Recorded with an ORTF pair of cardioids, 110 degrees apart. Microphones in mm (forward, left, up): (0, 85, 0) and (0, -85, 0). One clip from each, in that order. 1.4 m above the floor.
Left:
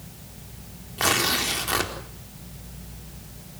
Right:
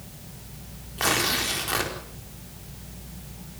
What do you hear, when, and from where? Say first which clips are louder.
1.0 s tearing paper: left 1 dB; 15° left, 4.5 m